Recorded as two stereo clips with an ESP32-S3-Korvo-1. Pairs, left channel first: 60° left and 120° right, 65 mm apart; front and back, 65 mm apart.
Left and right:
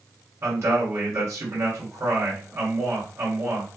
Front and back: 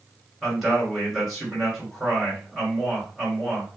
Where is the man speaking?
90° right, 2.5 m.